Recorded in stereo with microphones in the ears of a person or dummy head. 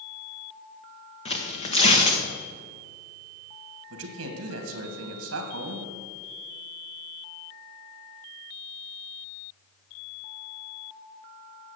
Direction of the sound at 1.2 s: 35° left (ahead or behind).